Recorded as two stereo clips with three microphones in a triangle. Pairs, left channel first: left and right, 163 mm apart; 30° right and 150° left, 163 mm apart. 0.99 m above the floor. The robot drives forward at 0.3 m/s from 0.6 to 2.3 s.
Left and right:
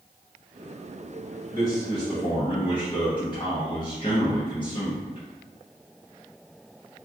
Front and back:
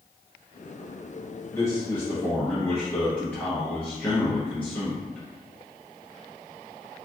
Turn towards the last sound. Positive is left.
turn(degrees=45)